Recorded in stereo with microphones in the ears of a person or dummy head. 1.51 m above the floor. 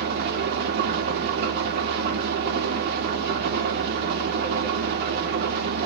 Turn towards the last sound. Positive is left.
turn(degrees=-55)  # may be behind; listen again after turning